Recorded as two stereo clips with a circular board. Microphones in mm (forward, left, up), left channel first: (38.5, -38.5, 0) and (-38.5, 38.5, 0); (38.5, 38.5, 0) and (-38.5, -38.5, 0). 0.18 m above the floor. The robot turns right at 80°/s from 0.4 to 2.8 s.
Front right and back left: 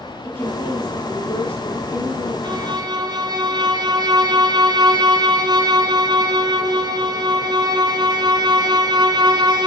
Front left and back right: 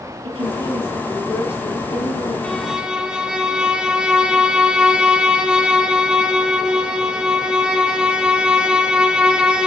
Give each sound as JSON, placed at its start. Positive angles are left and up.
{"t": 0.2, "sound": "a woman speaking", "azimuth_deg": -110, "distance_m": 4.5}
{"t": 2.4, "sound": "a violin", "azimuth_deg": 120, "distance_m": 1.4}